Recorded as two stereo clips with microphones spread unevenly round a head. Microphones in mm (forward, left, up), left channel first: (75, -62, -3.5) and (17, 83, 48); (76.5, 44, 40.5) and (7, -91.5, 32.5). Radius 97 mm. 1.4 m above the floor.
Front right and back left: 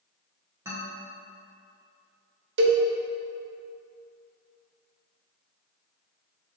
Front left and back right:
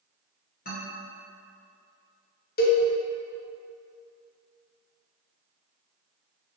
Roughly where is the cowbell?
Left.